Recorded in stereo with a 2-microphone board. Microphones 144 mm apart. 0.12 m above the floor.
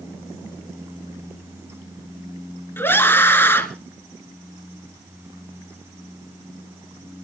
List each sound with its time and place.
2.8 s a scream: 15° left (ahead or behind), 1.9 m